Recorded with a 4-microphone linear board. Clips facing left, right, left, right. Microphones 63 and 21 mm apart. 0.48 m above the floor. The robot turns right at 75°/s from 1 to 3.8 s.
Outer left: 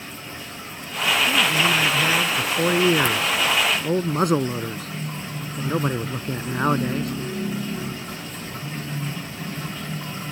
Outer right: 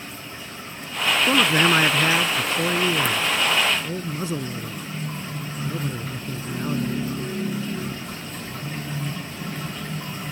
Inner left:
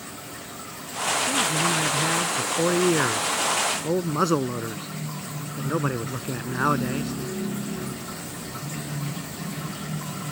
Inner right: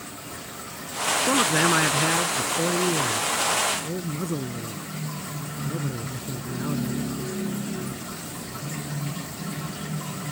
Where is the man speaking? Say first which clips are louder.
Outer right 5 dB, inner right 5 dB; 85° right; by 7.1 s 105° left.